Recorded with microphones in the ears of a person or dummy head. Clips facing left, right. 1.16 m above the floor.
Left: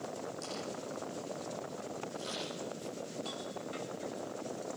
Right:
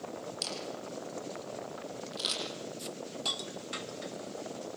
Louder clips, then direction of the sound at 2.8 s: Even; 65° right (ahead or behind).